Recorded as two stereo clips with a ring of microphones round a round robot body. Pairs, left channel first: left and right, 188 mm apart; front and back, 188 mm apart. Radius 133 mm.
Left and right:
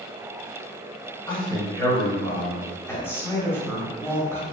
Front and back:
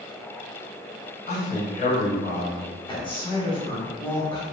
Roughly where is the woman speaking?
Ahead left.